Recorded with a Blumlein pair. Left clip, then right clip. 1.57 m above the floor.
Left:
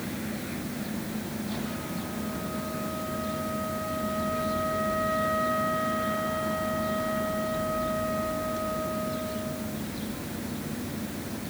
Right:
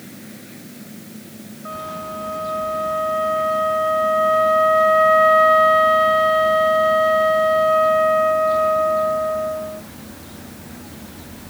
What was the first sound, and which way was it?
A machine running, 15° left.